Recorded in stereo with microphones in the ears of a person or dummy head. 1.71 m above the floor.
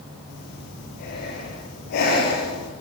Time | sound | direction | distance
0.3 | breathing | 60° left (ahead or behind) | 8 m